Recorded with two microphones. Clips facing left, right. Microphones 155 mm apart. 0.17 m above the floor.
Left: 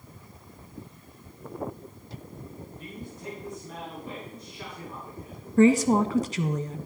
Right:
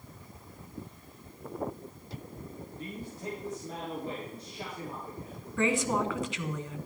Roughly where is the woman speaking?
Left.